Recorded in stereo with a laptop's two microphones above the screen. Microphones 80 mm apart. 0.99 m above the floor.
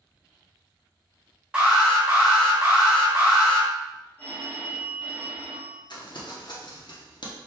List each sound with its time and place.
1.5 s an alarm: 15° right (ahead or behind), 1.0 m
4.2 s a phone ringing: 20° left (ahead or behind), 1.6 m
5.9 s crumpling: 65° left (ahead or behind), 0.9 m